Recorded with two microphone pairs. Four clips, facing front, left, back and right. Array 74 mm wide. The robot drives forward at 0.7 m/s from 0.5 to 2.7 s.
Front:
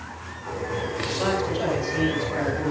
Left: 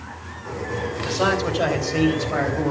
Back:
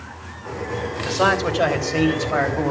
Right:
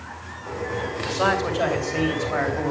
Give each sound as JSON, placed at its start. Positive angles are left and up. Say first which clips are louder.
{"t": 1.1, "sound": "a man speaking", "louder": "left 1 dB, back 7 dB", "azimuth_deg": -165, "distance_m": 2.5}